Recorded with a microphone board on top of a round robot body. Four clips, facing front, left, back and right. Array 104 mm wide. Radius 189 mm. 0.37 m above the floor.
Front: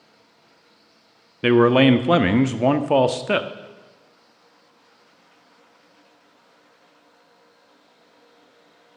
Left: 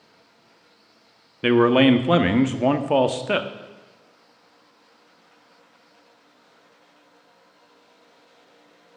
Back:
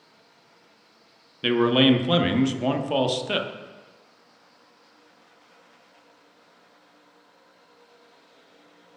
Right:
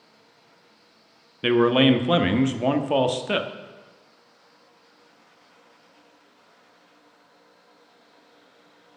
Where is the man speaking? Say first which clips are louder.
Left 2 dB, front 5 dB; 20° left, 0.8 m.